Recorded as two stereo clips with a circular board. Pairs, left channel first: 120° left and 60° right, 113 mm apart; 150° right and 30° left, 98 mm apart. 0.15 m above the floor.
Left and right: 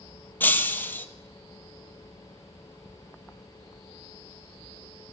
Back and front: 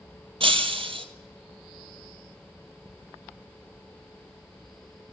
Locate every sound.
0.4 s breaking glass: 45° left, 0.7 m